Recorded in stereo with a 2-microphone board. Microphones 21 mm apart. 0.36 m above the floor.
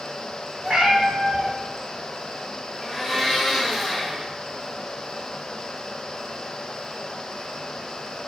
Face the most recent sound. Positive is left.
turn(degrees=-5)  # may be behind; listen again after turning